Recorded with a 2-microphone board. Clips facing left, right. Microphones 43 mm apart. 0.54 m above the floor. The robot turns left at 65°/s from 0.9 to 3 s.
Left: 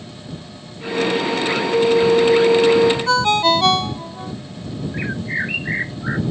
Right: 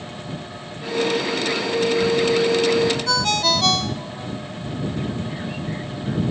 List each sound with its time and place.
3.1 s a ringtone: 30° left (ahead or behind)
4.9 s a bird: 90° left